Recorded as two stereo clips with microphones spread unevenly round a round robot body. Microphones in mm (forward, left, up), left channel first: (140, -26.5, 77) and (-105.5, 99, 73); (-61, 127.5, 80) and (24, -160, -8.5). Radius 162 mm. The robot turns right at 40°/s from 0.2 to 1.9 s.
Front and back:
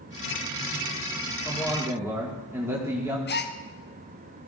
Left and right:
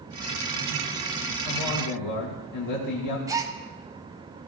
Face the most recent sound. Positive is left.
turn(degrees=-30)